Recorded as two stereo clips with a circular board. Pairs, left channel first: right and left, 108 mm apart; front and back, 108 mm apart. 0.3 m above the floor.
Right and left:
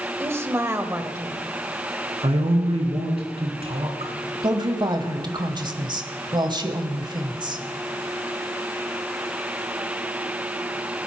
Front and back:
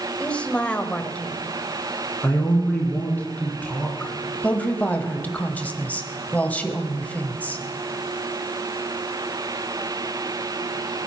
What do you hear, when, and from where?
0.2 s a woman speaking: 65° left, 1.2 m
2.2 s a man speaking: 75° left, 3 m
4.4 s a woman speaking: 70° left, 1.5 m